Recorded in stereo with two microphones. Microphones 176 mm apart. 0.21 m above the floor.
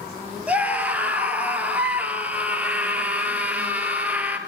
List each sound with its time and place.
0.5 s a scream: 10° right (ahead or behind), 3.5 m